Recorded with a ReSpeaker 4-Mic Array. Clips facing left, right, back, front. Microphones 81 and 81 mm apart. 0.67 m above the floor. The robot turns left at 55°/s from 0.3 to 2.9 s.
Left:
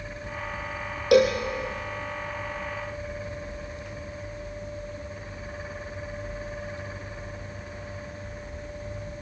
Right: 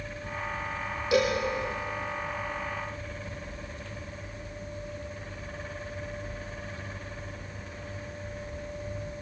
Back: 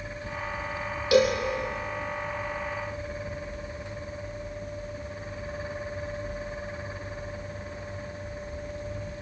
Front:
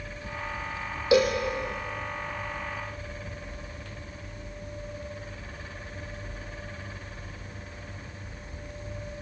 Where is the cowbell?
65° left, 4 m; by 1.4 s 55° left, 4 m.